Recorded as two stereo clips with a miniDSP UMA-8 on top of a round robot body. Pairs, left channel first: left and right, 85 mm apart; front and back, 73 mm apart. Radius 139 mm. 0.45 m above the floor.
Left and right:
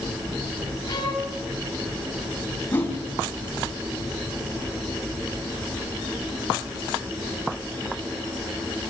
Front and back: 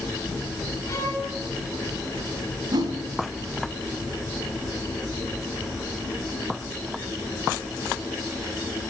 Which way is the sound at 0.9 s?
50° left.